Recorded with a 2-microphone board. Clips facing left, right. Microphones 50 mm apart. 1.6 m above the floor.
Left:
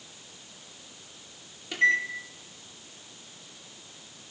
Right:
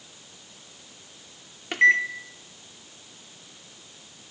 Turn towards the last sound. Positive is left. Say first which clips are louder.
# right 5 dB
turn(degrees=-50)  # may be behind; listen again after turning